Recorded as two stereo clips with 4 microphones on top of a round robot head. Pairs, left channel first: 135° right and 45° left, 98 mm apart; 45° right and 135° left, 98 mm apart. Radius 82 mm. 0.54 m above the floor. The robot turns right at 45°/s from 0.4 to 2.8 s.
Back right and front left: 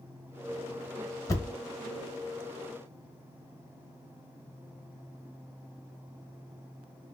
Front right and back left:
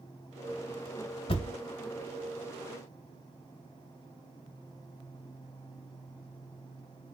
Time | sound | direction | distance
1.3 | a thud | 75° right | 0.7 m